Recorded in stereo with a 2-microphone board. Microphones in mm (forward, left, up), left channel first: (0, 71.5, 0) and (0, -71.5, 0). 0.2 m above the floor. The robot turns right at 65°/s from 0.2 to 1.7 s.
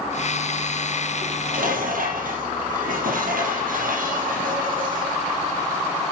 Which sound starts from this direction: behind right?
Dishes clattering, at 1.2 s.